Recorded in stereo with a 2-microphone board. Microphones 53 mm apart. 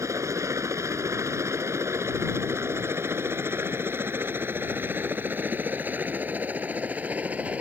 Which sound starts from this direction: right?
A helicopter, at 0.0 s.